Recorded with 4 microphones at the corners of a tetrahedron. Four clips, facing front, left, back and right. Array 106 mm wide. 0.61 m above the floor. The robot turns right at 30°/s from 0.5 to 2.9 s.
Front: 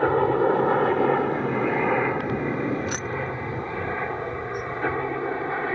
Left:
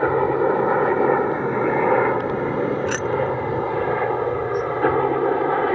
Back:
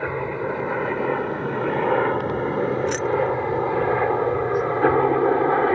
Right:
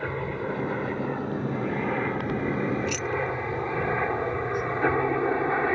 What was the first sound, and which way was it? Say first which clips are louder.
A helicopter: left 12 dB, front 6 dB; 65° left.